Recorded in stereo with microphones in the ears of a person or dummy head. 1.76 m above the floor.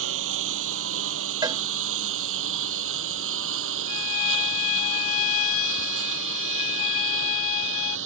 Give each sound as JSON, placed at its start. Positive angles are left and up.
{"t": 0.0, "sound": "a lawn mower", "side_deg": -80}
{"t": 1.4, "sound": "a cowbell", "side_deg": -20}
{"t": 3.9, "sound": "a violin", "side_deg": 35}